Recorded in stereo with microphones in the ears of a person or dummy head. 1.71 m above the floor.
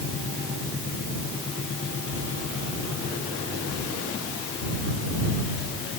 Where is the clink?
No clink in this recording.